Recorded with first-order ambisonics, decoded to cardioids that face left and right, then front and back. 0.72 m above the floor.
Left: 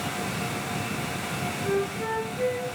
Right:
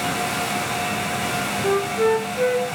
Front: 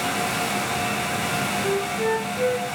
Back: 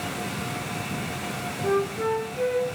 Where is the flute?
95° right, 0.5 m.